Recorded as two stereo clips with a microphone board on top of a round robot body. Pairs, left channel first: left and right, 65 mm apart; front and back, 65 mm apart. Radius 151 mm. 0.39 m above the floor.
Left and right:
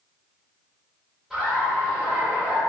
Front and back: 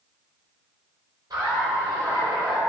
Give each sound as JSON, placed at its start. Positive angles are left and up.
{"t": 1.3, "sound": "laughter", "azimuth_deg": -170, "distance_m": 2.0}